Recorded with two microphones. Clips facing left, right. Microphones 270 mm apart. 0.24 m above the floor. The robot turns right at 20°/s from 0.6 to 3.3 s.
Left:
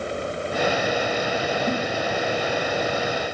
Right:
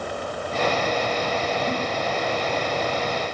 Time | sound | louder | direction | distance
1.7 | a giggle | left 5 dB | 30° left (ahead or behind) | 3 m